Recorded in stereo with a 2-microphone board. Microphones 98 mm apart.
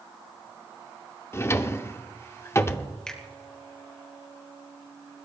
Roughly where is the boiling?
I don't hear boiling.